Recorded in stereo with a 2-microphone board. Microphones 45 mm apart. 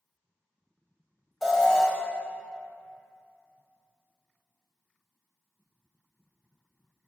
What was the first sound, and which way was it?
An alarm, 5° right (ahead or behind).